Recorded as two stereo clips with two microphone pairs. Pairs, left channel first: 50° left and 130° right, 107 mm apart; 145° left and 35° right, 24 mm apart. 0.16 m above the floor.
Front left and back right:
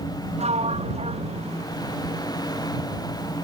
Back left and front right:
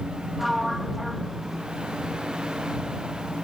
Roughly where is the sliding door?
Behind right.